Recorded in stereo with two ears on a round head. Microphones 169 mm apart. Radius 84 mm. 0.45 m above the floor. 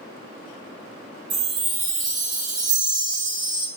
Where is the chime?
45° right (ahead or behind), 0.8 m.